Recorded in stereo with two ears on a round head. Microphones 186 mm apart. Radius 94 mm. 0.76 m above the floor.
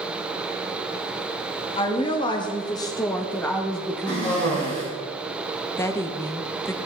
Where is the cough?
25° left (ahead or behind), 3.5 m.